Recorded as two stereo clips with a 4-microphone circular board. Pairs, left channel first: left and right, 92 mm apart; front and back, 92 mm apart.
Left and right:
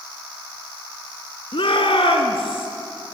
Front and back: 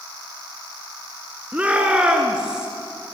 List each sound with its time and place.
1.5 s a shout: 105° left, 3.5 m; by 2.7 s 100° left, 4.5 m